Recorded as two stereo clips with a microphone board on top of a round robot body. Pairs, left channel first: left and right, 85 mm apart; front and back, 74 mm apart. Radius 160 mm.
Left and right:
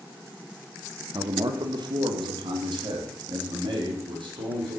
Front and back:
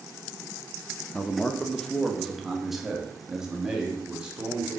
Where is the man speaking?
70° right, 1.4 m; by 4.8 s 105° right, 3.5 m.